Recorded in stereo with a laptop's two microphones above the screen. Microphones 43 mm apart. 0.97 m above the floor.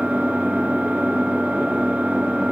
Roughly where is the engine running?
Right.